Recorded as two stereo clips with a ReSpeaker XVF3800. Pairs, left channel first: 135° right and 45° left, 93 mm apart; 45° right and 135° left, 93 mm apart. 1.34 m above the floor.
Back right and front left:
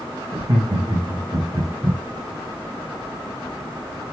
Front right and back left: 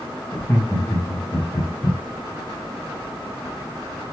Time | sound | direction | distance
0.3 | laughter | 20° left | 2.5 m